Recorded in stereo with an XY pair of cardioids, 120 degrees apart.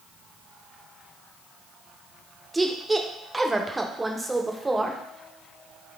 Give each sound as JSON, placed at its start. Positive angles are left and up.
{"t": 2.5, "sound": "a woman speaking", "azimuth_deg": -15, "distance_m": 0.7}